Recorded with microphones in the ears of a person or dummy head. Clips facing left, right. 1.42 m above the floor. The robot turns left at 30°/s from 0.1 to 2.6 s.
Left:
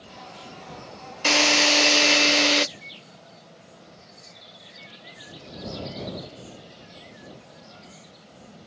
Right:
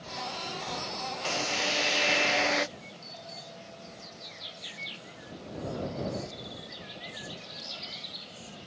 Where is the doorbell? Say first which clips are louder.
Right 3 dB; 70° right (ahead or behind).